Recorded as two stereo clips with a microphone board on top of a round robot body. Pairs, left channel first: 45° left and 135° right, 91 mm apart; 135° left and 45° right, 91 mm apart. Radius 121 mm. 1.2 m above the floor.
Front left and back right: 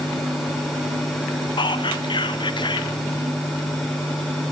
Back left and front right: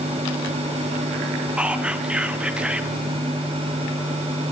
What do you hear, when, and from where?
1.6 s whispering: 30° left, 0.9 m